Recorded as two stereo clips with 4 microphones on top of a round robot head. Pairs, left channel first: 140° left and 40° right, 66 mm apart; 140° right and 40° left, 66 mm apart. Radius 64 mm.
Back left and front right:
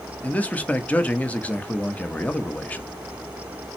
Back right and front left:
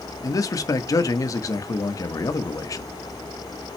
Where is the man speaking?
155° right, 1.5 m.